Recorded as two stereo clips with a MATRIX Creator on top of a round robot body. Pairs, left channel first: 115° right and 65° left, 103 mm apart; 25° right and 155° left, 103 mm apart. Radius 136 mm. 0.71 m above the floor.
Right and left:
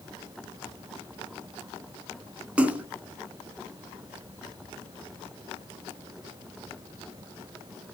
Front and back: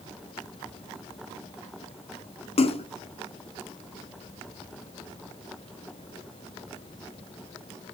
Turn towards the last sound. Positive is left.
turn(degrees=-10)